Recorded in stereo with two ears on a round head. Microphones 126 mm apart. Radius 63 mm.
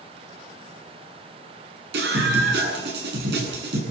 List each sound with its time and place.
1.9 s a scream: 85° right, 8.5 m